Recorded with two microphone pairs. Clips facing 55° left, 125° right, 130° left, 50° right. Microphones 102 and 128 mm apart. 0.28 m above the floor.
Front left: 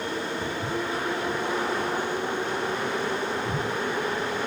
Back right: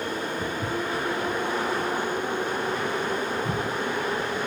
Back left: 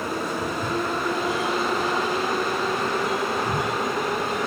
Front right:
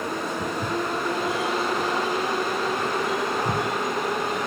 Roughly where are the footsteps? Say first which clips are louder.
Back right 1 dB, back left 1 dB; ahead right.